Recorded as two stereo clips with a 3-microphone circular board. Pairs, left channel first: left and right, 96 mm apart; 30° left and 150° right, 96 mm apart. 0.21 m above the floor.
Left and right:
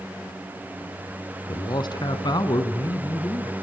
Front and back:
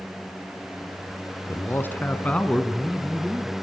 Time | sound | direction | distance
1.5 | a man speaking | 85° left | 2.0 m